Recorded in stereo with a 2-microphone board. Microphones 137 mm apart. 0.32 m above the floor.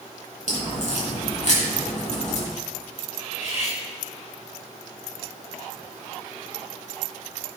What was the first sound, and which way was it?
A crack, 60° left (ahead or behind).